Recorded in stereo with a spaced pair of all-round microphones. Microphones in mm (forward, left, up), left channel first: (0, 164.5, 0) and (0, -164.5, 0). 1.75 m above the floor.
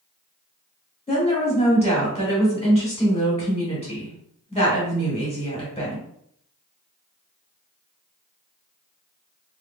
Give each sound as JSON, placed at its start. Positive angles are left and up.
{"t": 1.1, "sound": "a woman speaking", "side_deg": 20, "distance_m": 1.9}